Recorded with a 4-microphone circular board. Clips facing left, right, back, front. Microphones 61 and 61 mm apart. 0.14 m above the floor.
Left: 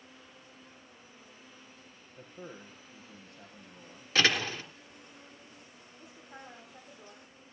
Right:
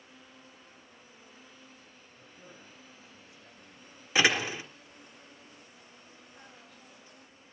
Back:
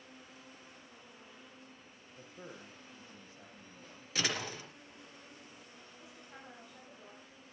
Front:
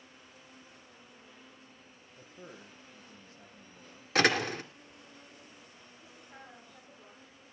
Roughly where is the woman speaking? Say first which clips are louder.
Left 8 dB, front 1 dB; left.